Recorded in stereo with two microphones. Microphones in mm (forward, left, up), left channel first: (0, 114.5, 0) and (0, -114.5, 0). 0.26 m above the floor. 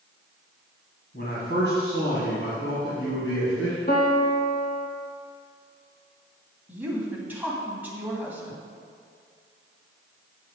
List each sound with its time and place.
1.1 s a man speaking: 50° left (ahead or behind), 1.9 m; by 3.8 s 60° left (ahead or behind), 3.5 m
3.9 s a piano: 45° left (ahead or behind), 1.6 m
6.7 s a woman speaking: 10° right (ahead or behind), 2 m